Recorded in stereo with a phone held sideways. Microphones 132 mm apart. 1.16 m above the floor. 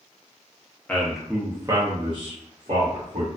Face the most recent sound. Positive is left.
turn(degrees=-65)  # may be behind; listen again after turning